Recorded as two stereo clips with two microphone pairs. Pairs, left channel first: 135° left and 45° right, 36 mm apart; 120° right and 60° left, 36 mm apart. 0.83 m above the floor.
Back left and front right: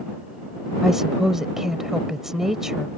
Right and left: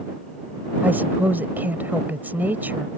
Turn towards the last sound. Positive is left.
turn(degrees=35)